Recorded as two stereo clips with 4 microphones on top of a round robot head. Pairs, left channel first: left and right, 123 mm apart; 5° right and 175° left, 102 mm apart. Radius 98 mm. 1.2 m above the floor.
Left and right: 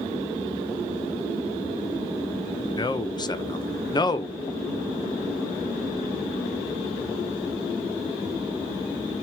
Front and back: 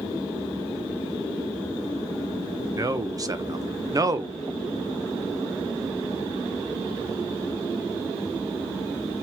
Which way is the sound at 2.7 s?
130° left.